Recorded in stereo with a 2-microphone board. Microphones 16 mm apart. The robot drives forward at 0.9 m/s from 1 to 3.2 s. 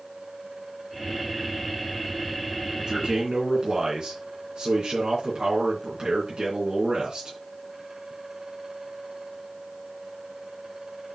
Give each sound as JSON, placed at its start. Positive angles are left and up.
{"t": 2.8, "sound": "a man speaking", "side_deg": -45, "distance_m": 3.5}